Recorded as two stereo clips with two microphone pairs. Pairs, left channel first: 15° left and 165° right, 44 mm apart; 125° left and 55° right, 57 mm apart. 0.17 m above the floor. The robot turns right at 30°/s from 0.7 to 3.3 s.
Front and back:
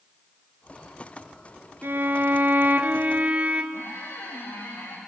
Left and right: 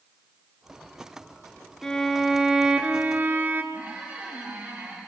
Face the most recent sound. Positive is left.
turn(degrees=15)